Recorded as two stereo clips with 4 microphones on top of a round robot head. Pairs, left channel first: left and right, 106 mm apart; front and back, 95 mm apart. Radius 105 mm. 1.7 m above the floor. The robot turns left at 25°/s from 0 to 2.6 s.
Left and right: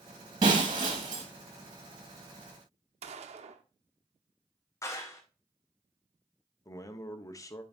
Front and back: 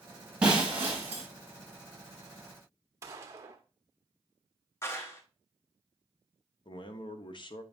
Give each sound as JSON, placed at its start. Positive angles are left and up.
{"t": 0.4, "sound": "breaking glass", "azimuth_deg": -100, "distance_m": 1.1}
{"t": 3.0, "sound": "a gunshot", "azimuth_deg": -115, "distance_m": 0.6}
{"t": 4.8, "sound": "a clap", "azimuth_deg": 45, "distance_m": 0.7}
{"t": 6.7, "sound": "a man speaking", "azimuth_deg": 35, "distance_m": 1.0}